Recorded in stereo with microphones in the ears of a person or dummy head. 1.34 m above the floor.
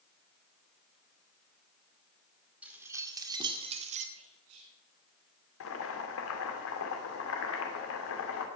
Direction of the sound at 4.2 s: 80° right.